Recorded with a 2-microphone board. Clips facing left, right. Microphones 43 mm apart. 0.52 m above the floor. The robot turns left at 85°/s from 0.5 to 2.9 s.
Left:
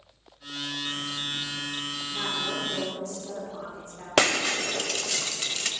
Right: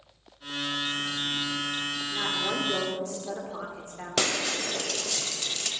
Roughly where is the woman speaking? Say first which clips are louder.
Right 1 dB; ahead.